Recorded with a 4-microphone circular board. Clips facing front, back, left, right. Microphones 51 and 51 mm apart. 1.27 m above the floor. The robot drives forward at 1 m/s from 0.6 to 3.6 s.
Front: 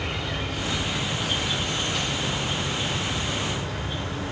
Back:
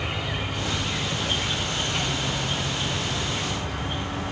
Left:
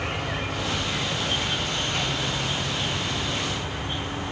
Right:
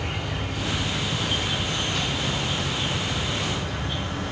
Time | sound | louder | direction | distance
0.0 | an insect | even, left 2 dB | 100° left | 2.5 m